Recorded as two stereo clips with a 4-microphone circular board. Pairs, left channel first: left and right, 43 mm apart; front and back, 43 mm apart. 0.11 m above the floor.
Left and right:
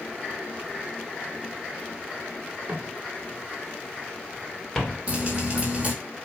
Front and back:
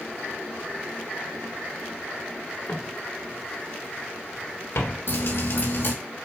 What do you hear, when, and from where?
2.7 s footsteps: 30° right, 3 m; by 5.0 s 15° left, 2.5 m
5.1 s dripping: 25° right, 3 m